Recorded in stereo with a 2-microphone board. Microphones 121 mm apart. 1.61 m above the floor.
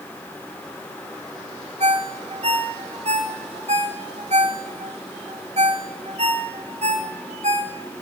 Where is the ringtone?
65° right (ahead or behind), 3 m.